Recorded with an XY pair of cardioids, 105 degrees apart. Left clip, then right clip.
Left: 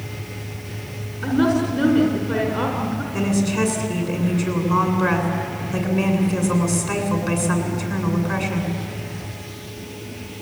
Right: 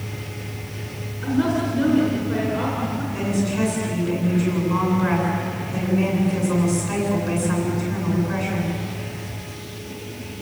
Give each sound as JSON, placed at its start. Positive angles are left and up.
{"t": 1.2, "sound": "a woman speaking", "azimuth_deg": 45, "distance_m": 5.0}
{"t": 3.1, "sound": "a woman speaking", "azimuth_deg": 50, "distance_m": 8.5}